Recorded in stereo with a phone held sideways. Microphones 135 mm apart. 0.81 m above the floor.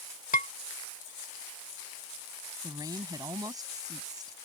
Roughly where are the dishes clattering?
Left.